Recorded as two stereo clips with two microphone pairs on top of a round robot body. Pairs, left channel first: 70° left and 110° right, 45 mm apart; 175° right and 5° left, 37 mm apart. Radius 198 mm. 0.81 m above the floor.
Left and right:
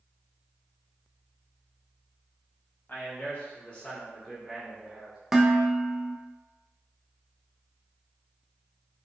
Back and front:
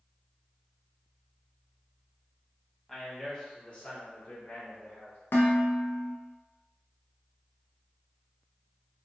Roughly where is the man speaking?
Left.